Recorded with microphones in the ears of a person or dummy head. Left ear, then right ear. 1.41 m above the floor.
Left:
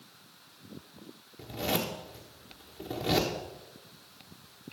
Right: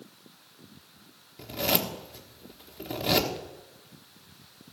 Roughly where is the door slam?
I don't hear a door slam.